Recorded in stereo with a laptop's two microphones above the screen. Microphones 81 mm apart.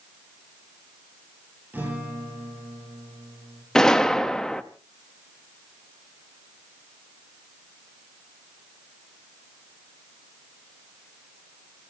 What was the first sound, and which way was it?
A guitar, 20° right (ahead or behind).